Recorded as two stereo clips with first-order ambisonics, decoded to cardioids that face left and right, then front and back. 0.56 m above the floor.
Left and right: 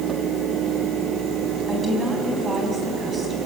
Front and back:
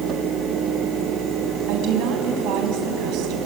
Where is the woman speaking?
165° right, 4.5 m.